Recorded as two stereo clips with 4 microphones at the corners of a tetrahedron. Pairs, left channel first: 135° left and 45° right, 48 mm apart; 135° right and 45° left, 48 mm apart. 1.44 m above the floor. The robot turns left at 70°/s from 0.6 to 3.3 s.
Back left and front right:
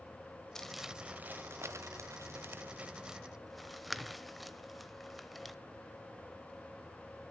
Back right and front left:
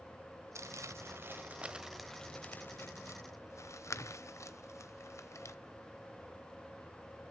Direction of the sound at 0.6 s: 55° left.